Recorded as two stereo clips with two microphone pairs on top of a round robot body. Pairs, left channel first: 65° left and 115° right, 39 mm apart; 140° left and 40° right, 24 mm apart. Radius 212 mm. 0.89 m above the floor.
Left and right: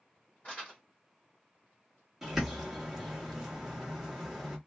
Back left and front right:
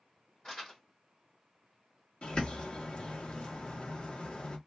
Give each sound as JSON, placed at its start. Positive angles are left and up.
{"t": 0.4, "sound": "crumpling", "azimuth_deg": 100, "distance_m": 0.6}
{"t": 2.2, "sound": "a bird", "azimuth_deg": 160, "distance_m": 1.3}